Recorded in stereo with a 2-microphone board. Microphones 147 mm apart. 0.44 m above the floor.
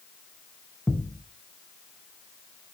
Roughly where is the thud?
Centre.